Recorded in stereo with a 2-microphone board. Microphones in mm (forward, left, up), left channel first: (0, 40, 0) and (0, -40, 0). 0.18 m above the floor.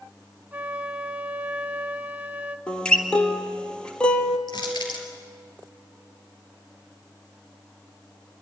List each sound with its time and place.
0.5 s a flute: 20° right (ahead or behind), 0.7 m
2.7 s a guitar: 10° left (ahead or behind), 1.3 m
4.5 s crushing: 65° left (ahead or behind), 3.5 m